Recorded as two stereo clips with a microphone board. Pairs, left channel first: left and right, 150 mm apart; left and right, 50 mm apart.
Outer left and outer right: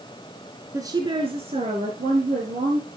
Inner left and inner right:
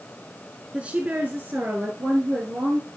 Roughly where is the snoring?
No snoring in this recording.